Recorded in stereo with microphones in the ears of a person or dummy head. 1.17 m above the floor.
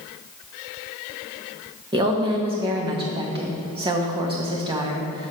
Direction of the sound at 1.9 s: 25° right (ahead or behind).